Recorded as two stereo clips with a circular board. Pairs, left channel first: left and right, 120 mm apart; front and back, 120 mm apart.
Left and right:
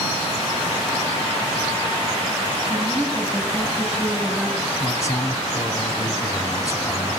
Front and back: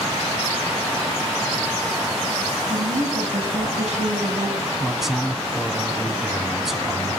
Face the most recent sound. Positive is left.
turn(degrees=95)